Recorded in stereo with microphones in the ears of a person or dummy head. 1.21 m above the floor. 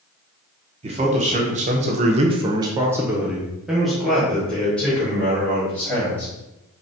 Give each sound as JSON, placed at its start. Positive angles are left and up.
{"t": 0.8, "sound": "a man speaking", "side_deg": -40, "distance_m": 1.0}